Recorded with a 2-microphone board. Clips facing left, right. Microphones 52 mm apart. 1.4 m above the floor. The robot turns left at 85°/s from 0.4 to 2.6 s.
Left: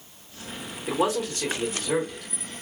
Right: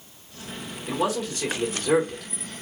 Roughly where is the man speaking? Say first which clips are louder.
Left 1 dB; ahead left.